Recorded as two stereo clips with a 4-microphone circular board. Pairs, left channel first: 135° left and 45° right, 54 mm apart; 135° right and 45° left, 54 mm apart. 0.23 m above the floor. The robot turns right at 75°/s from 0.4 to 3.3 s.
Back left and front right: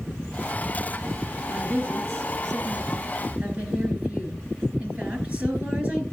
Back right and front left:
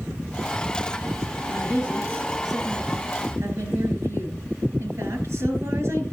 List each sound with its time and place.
1.4 s a woman speaking: 125° right, 3.5 m; by 6.0 s 15° left, 3.5 m